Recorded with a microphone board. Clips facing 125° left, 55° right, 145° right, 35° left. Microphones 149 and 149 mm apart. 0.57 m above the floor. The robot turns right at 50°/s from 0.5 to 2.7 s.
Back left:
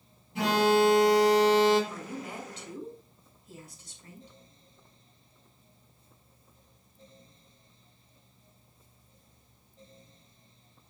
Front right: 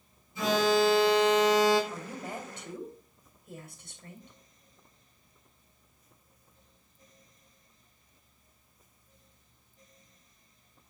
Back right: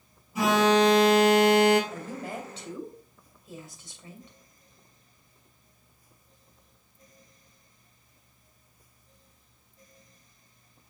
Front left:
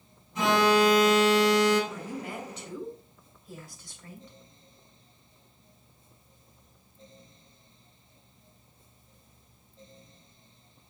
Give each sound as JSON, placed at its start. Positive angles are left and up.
{"t": 0.3, "sound": "an alarm", "azimuth_deg": 130, "distance_m": 4.5}
{"t": 1.9, "sound": "a woman speaking", "azimuth_deg": -120, "distance_m": 2.5}